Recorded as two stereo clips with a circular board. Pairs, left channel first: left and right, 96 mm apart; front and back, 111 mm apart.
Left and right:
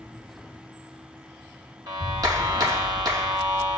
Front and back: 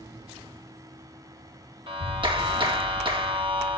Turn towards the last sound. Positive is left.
turn(degrees=-140)